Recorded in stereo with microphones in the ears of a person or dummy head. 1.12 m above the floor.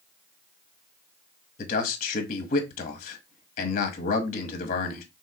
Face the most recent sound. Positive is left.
turn(degrees=40)  # may be behind; listen again after turning